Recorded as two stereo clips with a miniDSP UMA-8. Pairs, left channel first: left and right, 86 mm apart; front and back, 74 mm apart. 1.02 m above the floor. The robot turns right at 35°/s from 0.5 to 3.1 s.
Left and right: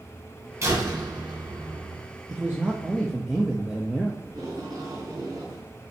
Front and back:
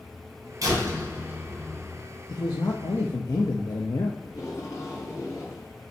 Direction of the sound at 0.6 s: 145° right.